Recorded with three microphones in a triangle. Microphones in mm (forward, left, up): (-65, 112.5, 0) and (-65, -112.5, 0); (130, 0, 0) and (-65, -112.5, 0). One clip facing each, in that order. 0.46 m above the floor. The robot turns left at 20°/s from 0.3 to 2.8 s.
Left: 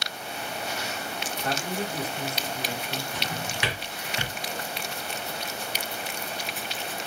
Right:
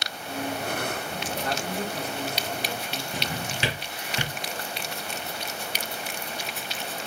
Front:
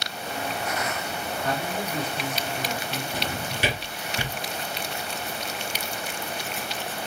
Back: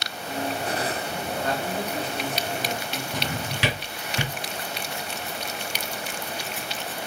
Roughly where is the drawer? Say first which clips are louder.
Right 1 dB, back 1 dB; behind right.